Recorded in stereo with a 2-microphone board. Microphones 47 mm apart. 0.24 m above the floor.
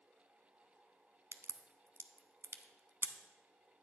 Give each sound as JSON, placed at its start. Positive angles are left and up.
{"t": 1.3, "sound": "a crack", "side_deg": -70, "distance_m": 0.6}